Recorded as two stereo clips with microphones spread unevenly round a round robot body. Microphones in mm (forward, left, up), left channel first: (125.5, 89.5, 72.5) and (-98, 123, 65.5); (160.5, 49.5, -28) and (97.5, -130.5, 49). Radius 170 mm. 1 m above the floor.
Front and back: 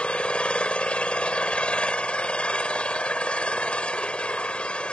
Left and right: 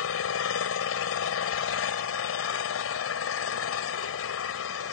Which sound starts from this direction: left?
An engine running, at 0.0 s.